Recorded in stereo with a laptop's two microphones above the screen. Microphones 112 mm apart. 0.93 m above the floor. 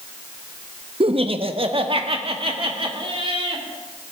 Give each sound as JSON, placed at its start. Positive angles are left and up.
{"t": 1.0, "sound": "laughter", "side_deg": -55, "distance_m": 0.7}